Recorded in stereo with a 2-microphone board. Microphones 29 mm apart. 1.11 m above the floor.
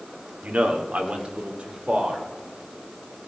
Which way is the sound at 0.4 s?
70° right (ahead or behind).